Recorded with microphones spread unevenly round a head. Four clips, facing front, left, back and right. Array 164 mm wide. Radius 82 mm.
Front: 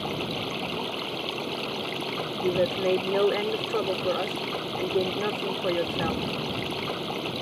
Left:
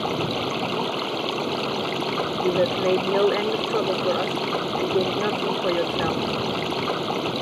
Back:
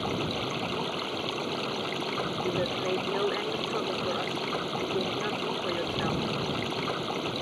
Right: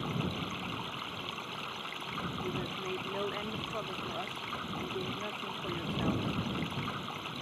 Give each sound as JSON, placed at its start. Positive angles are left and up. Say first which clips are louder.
{"t": 0.0, "sound": "running water", "louder": "left 12 dB, even", "azimuth_deg": 90}
{"t": 2.4, "sound": "a woman speaking", "louder": "left 17 dB, front 8 dB", "azimuth_deg": 65}